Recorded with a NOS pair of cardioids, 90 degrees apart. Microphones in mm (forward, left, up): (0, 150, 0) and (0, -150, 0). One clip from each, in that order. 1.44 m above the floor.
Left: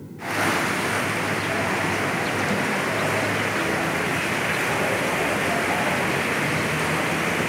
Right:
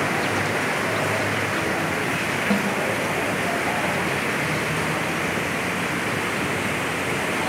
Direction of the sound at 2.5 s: 35° right.